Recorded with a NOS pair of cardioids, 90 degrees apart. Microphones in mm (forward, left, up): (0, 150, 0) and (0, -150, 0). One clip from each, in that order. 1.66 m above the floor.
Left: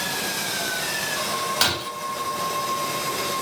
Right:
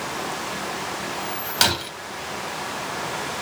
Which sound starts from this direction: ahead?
Breaking glass, at 1.6 s.